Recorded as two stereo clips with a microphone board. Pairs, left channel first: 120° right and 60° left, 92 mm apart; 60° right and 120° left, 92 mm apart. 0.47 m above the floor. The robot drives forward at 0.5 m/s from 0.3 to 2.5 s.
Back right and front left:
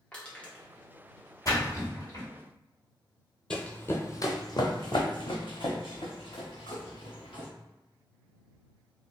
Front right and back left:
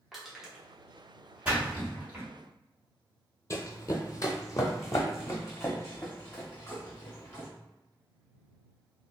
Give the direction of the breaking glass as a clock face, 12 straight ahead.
I don't hear breaking glass.